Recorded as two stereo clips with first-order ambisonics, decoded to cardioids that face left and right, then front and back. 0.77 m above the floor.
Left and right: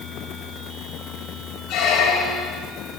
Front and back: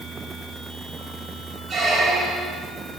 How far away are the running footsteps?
I don't hear running footsteps.